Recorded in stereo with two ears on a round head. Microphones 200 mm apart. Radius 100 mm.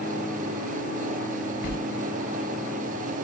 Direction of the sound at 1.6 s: 50° left (ahead or behind).